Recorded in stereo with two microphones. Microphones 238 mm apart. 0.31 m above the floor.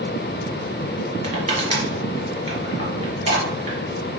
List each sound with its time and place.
1.2 s crushing: 30° right (ahead or behind), 2.0 m